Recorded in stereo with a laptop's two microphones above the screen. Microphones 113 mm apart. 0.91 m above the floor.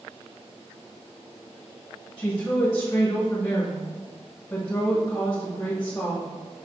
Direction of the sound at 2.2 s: 15° left (ahead or behind).